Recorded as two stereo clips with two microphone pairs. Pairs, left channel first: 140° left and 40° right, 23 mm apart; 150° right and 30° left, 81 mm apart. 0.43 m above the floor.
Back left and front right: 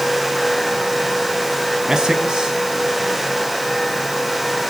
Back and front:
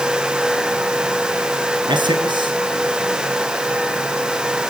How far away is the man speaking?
About 4.5 m.